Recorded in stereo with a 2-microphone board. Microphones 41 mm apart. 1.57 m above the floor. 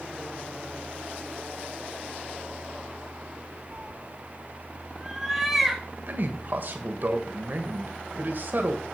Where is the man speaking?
55° right (ahead or behind), 1.3 m.